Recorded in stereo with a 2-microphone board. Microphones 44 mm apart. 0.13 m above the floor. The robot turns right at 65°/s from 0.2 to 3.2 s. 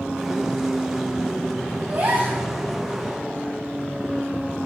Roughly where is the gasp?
Right.